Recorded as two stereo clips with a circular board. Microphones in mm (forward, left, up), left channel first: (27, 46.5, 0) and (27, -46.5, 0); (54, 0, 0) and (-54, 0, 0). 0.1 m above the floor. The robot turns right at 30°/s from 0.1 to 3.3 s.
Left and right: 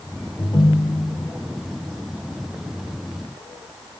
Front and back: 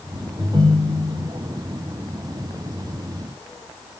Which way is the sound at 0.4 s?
125° left.